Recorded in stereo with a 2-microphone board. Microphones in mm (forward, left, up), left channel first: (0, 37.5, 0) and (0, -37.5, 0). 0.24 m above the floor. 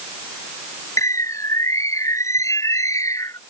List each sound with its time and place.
1.0 s a bird: 45° left (ahead or behind)